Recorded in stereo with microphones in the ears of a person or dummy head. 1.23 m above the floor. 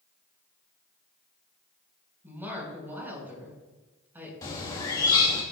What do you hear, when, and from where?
2.2 s a woman speaking: 15° right (ahead or behind), 5 m
4.4 s a bird: 25° left (ahead or behind), 1.7 m